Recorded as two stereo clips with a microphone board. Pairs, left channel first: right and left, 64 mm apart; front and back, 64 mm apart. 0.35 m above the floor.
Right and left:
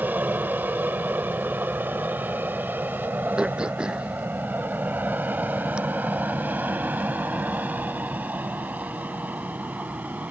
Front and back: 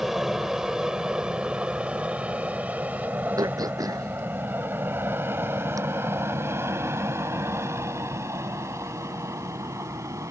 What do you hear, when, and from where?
0.0 s an aircraft: 100° left; by 10.3 s 155° left
3.4 s throat clearing: 165° left